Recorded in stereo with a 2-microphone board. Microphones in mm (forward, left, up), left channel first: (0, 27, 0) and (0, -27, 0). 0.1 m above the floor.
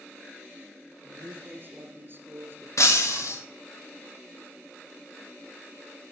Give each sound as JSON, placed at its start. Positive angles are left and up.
{"t": 1.0, "sound": "a man speaking", "side_deg": -40, "distance_m": 1.9}
{"t": 2.8, "sound": "breaking glass", "side_deg": 65, "distance_m": 1.8}